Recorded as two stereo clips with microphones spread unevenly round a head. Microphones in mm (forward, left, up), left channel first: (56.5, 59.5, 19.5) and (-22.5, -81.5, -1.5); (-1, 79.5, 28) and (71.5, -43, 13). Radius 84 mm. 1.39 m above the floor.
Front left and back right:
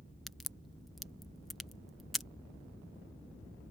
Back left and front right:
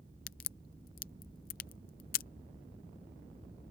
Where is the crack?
150° left.